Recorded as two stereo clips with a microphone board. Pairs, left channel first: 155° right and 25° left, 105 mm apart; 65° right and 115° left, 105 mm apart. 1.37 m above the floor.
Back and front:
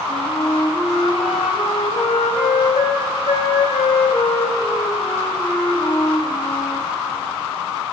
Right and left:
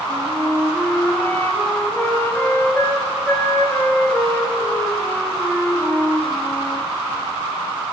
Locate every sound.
0.1 s a flute: 140° right, 3.5 m